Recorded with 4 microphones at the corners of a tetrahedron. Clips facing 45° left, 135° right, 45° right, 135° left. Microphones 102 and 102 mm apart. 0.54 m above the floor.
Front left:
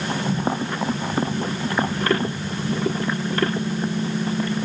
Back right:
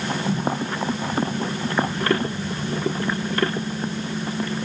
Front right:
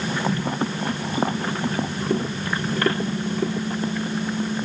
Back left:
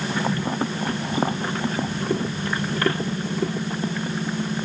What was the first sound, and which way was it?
Only background noise.